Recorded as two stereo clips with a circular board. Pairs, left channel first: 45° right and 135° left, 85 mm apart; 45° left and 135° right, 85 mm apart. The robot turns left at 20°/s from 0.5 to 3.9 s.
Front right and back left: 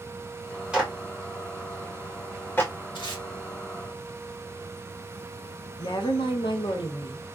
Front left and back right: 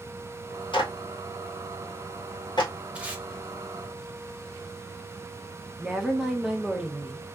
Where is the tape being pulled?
60° right, 1.0 m; by 3.2 s 65° right, 1.0 m.